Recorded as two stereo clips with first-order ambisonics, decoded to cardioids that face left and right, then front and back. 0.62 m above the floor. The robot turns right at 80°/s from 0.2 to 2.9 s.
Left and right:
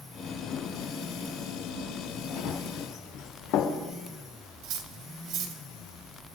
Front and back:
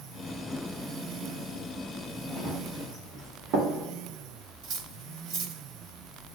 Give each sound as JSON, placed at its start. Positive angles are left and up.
{"t": 2.4, "sound": "running footsteps", "azimuth_deg": 110, "distance_m": 3.5}
{"t": 4.6, "sound": "cutlery clinking", "azimuth_deg": -130, "distance_m": 1.5}